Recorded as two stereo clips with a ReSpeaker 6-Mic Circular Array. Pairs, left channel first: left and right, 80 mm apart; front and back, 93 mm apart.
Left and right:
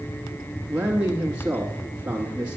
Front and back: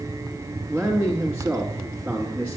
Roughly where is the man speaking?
Behind right.